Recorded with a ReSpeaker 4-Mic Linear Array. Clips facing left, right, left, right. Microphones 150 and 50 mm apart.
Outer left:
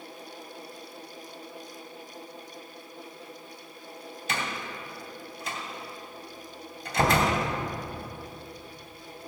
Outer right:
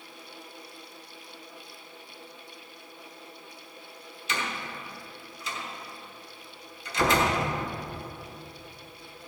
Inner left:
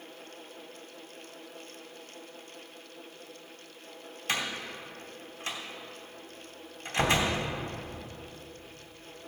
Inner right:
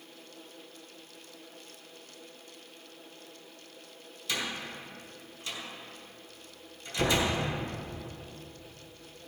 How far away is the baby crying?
No baby crying in this recording.